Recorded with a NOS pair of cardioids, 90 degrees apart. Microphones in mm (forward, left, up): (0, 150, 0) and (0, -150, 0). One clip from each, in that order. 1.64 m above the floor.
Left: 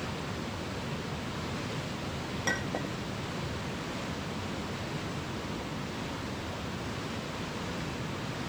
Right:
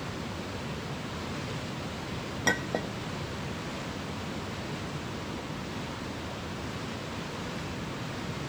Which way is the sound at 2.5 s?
35° right.